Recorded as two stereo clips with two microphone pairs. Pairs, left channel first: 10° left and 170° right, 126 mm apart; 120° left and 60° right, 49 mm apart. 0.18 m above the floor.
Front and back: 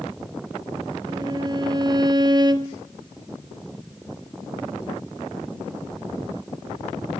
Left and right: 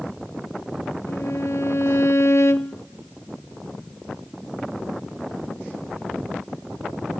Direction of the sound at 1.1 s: 135° left.